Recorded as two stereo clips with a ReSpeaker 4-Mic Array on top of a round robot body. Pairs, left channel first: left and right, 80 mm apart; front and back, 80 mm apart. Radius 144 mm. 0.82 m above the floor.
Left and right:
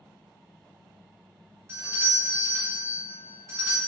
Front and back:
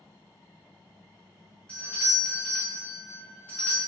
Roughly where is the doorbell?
Ahead right.